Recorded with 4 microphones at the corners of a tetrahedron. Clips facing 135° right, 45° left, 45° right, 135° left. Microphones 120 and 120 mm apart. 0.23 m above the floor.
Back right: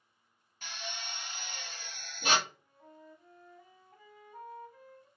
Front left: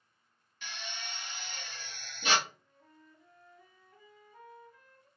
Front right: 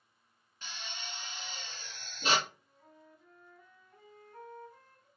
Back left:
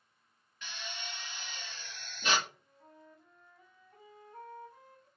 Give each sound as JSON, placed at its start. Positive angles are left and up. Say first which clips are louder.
{"t": 0.6, "sound": "a drill", "louder": "back right 1 dB, back left 1 dB", "azimuth_deg": -95, "distance_m": 1.2}
{"t": 2.5, "sound": "a flute", "louder": "back right 3 dB, back left 1 dB", "azimuth_deg": -155, "distance_m": 1.4}